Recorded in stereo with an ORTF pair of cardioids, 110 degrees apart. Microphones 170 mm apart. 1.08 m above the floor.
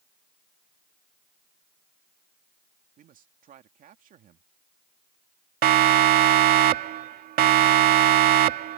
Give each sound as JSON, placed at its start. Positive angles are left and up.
{"t": 3.0, "sound": "a man speaking", "azimuth_deg": -55}
{"t": 5.6, "sound": "a siren", "azimuth_deg": -65}